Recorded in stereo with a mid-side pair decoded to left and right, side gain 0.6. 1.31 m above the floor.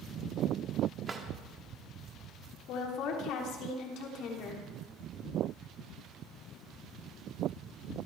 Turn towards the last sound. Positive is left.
turn(degrees=65)